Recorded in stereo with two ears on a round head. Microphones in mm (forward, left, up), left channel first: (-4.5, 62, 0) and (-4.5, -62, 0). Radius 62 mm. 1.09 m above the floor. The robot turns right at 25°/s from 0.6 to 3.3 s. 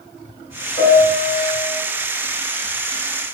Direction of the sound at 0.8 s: 40° left (ahead or behind).